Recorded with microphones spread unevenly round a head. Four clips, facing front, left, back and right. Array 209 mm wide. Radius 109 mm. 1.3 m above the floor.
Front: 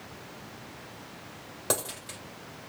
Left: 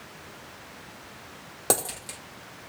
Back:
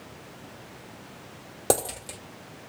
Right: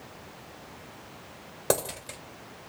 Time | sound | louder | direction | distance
1.7 | a dropped coin | right 1 dB, back 7 dB | 155° left | 1.5 m